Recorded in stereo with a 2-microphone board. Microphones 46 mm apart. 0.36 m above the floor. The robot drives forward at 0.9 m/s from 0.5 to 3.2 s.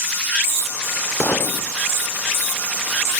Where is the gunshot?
65° left (ahead or behind); by 1.7 s 70° left (ahead or behind).